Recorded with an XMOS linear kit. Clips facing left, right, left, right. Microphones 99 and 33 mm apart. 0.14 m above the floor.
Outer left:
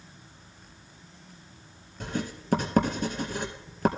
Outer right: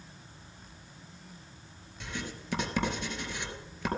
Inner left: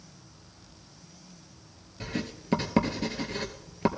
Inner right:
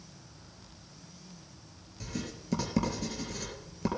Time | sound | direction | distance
2.0 | writing | 40° left (ahead or behind) | 2 m